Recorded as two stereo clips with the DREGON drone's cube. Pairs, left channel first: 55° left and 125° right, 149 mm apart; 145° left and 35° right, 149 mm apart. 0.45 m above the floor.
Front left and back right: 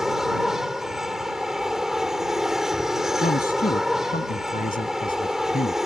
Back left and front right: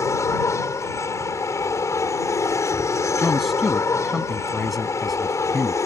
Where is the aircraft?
155° left.